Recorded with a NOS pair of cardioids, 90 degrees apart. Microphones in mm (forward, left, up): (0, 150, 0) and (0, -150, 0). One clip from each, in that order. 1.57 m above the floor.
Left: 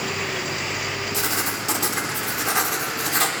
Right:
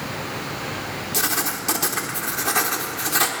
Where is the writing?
20° right, 3.5 m.